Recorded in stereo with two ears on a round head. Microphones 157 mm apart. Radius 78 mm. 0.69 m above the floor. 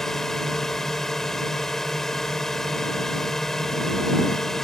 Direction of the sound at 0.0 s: Centre (ahead or behind).